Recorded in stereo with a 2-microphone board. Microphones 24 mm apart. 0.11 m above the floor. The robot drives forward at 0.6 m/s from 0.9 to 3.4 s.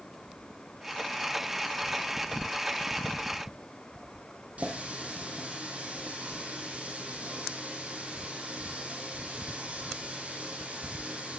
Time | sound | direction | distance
4.6 | a running tap | 70° right (ahead or behind) | 3 m